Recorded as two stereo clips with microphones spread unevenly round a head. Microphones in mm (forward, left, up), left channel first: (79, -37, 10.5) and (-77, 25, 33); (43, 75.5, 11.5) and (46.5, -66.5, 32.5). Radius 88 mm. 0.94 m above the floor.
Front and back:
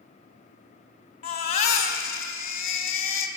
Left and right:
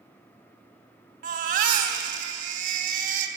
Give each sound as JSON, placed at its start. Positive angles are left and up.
{"t": 1.2, "sound": "a baby crying", "azimuth_deg": -75, "distance_m": 3.5}